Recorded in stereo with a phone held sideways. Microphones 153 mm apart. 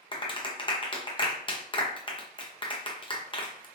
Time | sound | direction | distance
0.1 | a clap | 30° left (ahead or behind) | 0.7 m